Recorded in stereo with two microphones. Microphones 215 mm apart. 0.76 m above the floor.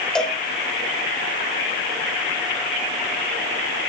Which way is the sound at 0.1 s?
5° left (ahead or behind).